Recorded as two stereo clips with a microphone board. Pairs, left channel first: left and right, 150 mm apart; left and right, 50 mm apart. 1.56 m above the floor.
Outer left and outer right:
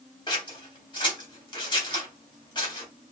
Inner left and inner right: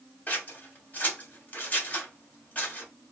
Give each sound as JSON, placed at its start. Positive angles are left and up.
{"t": 0.3, "sound": "scissors", "side_deg": 30, "distance_m": 1.4}